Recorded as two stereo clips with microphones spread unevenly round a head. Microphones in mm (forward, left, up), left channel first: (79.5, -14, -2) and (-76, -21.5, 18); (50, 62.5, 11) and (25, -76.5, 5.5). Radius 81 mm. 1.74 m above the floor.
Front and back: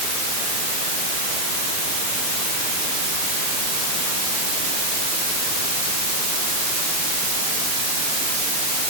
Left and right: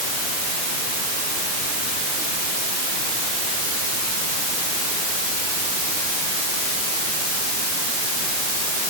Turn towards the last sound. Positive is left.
No sound to turn to.